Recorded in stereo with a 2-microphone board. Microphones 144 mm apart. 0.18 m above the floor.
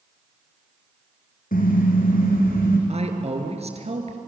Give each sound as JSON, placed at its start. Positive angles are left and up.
{"t": 1.5, "sound": "a car horn", "side_deg": 75, "distance_m": 4.0}
{"t": 2.9, "sound": "a woman speaking", "side_deg": -45, "distance_m": 3.0}